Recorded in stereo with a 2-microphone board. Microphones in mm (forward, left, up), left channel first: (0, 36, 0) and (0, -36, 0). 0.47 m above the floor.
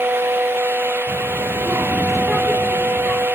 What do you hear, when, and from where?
1.1 s a child speaking: 50° right (ahead or behind), 1.5 m; by 3.3 s 35° left (ahead or behind), 1.8 m